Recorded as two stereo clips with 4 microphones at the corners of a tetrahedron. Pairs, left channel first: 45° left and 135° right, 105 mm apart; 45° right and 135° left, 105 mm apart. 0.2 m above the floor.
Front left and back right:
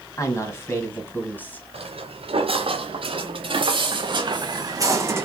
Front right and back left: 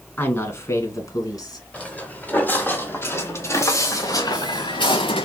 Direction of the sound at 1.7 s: 125° right.